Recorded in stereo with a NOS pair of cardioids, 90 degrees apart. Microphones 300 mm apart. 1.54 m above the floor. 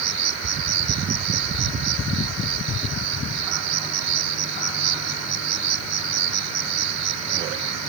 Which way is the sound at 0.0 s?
65° right.